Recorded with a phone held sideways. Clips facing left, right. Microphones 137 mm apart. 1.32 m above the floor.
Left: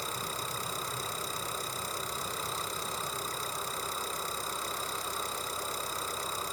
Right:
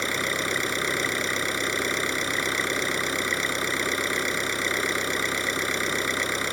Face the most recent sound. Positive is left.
turn(degrees=-85)